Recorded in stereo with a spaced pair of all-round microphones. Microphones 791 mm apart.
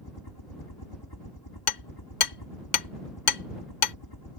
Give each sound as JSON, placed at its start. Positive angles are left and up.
{"t": 0.0, "sound": "a helicopter", "side_deg": 25}
{"t": 1.7, "sound": "hammering", "side_deg": 60}